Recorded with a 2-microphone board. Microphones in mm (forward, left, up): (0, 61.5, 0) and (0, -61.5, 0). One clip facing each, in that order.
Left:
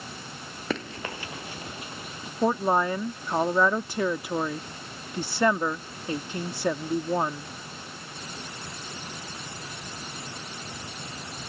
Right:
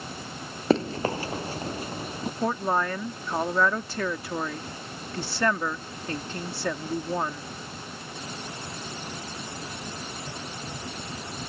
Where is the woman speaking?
15° left (ahead or behind).